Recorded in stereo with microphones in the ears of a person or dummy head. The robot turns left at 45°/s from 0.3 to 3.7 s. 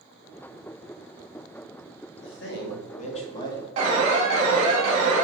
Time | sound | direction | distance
2.2 | a man speaking | 80° left | 1.9 m
3.8 | an alarm | 40° right (ahead or behind) | 2.5 m